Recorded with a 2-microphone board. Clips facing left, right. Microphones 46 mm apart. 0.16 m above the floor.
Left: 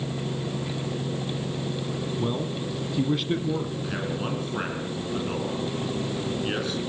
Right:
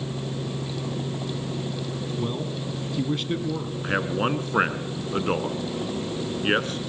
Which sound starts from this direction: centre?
A man speaking, at 2.2 s.